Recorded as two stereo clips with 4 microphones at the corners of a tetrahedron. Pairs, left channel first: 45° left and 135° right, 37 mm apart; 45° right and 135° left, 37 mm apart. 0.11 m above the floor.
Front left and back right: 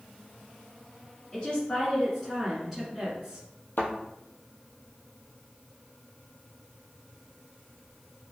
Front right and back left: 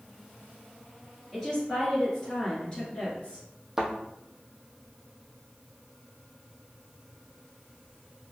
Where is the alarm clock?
No alarm clock in this recording.